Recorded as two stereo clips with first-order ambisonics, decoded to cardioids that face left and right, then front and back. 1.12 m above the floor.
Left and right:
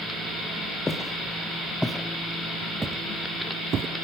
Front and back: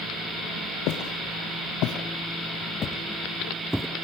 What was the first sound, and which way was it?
Footsteps, 10° left.